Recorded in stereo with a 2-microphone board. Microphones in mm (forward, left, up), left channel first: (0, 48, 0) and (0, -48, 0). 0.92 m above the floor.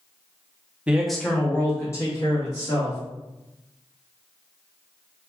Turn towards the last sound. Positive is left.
turn(degrees=40)  # may be behind; listen again after turning